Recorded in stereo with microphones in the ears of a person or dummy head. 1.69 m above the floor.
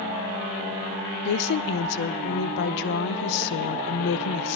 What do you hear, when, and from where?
1.2 s a woman speaking: 60° left (ahead or behind), 0.6 m